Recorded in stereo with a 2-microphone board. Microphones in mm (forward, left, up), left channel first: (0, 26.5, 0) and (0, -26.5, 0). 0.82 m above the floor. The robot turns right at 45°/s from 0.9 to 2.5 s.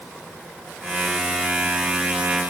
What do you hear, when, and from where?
Only background noise.